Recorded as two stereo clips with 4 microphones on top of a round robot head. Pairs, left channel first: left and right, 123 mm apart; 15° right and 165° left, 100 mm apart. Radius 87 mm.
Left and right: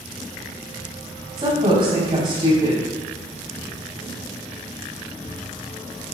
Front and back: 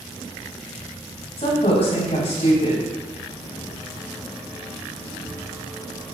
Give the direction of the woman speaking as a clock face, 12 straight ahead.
1 o'clock.